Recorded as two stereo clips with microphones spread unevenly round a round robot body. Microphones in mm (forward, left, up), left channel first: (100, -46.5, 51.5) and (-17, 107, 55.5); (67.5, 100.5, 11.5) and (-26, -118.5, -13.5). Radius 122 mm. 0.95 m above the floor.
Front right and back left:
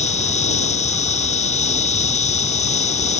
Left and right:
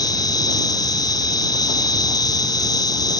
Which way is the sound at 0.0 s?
Straight ahead.